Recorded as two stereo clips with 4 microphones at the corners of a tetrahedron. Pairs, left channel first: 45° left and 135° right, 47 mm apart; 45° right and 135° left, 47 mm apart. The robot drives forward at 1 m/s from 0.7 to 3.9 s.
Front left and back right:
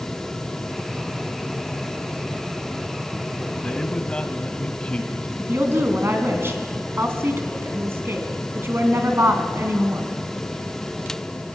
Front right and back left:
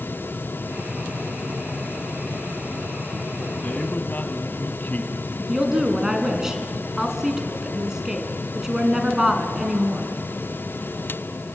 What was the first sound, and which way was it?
A man speaking, 15° right.